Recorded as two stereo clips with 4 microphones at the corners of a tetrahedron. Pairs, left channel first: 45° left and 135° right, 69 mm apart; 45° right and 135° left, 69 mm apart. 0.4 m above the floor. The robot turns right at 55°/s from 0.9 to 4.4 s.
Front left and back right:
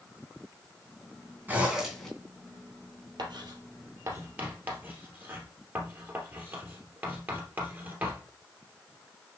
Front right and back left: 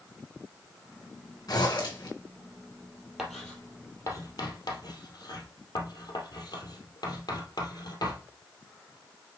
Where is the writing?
140° right, 2.5 m; by 8.2 s 75° right, 2.5 m.